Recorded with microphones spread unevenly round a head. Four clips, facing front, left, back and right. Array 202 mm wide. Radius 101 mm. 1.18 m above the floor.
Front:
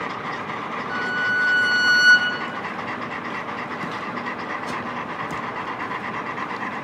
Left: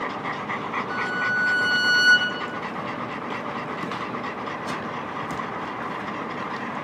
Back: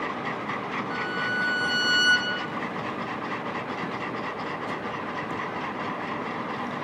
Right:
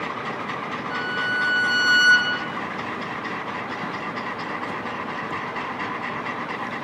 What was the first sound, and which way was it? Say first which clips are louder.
A violin: right 1 dB, front 7 dB; 30° left.